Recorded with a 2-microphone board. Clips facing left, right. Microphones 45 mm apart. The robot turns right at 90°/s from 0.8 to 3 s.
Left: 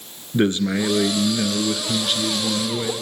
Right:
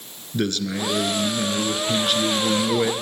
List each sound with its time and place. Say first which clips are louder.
0.3 s a man speaking: left 5 dB; 25° left (ahead or behind), 1.2 m; by 2.9 s 30° right (ahead or behind), 1.2 m